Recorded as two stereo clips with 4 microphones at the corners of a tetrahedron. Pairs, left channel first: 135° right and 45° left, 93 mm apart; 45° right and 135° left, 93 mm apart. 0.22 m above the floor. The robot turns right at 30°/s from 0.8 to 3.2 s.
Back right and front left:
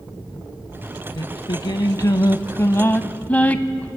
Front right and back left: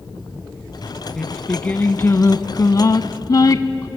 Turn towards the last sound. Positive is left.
turn(degrees=-65)